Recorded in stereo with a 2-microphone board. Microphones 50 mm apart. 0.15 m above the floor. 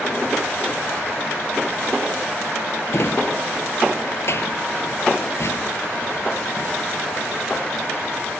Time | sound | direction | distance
2.9 | a drawer | 60° left (ahead or behind) | 1.0 m